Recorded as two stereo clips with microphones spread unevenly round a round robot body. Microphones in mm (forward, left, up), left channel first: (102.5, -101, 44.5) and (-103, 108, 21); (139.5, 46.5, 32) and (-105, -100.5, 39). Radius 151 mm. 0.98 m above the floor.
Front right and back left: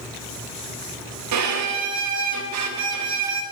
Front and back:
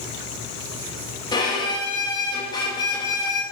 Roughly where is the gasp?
No gasp in this recording.